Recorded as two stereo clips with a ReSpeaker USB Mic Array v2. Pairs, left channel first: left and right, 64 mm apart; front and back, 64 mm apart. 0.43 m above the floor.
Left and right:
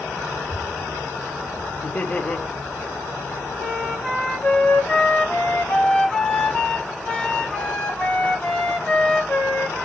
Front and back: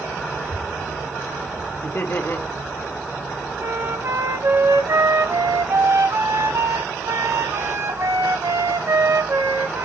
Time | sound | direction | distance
0.3 | a child speaking | 165° left | 5.5 m
1.8 | laughter | 30° left | 2 m
3.6 | a flute | 165° left | 2.5 m